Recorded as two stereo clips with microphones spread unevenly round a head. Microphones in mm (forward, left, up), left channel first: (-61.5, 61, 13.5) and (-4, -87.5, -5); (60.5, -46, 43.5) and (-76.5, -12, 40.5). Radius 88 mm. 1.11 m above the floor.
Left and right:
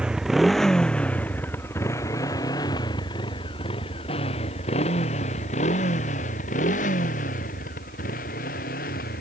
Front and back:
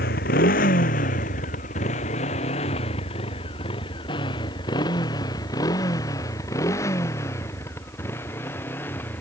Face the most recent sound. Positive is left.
turn(degrees=65)